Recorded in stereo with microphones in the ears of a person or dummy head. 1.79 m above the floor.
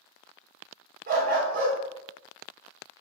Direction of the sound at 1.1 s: 45° right (ahead or behind).